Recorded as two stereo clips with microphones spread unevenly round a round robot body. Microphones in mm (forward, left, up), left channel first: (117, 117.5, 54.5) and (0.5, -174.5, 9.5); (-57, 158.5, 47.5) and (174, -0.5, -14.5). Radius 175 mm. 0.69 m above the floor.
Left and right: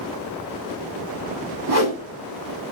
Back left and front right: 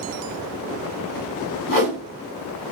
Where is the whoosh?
155° right, 5 m.